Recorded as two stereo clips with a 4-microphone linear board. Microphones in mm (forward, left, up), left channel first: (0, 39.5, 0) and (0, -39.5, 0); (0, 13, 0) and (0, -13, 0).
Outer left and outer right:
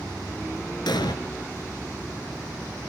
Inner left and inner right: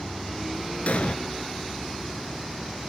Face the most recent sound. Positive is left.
turn(degrees=60)  # may be behind; listen again after turning